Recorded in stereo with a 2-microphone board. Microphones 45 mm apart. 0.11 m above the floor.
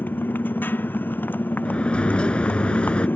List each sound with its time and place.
0.0 s a motorcycle: 50° left (ahead or behind)
1.6 s a sliding door: 30° left (ahead or behind)